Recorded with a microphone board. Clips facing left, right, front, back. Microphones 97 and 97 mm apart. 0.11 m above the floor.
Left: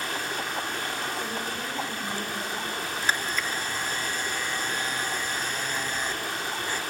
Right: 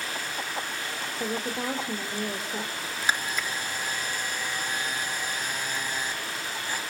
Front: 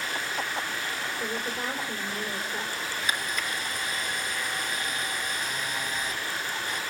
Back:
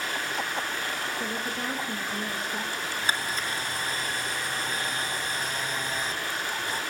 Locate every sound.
0.0 s running water: 130° left, 9 m
1.2 s a woman speaking: 90° right, 3 m
3.0 s a camera shutter: 160° right, 1.9 m